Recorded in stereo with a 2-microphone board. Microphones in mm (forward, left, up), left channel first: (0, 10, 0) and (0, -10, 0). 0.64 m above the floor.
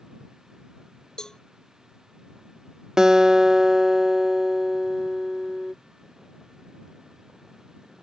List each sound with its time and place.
1.2 s a cowbell: 45° left (ahead or behind)
3.0 s a guitar: 35° right (ahead or behind)